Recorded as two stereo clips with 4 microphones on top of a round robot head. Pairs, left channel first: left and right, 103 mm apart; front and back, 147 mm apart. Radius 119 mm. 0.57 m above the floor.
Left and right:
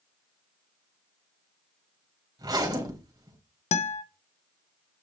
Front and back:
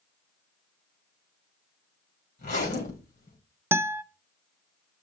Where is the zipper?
40° right, 3.5 m.